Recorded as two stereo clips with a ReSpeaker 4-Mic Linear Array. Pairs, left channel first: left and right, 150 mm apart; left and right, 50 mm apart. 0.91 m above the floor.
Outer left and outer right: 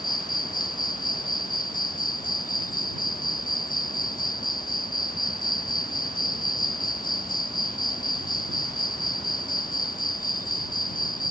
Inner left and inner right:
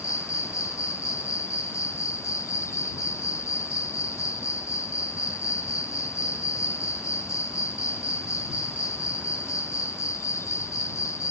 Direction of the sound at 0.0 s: 65° left (ahead or behind).